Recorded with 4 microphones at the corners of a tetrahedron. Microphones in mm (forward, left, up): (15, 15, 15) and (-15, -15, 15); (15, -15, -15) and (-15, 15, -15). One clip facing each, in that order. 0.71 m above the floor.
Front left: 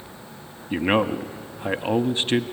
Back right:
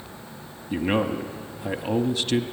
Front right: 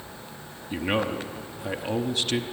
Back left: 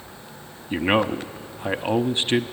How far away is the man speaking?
About 0.8 m.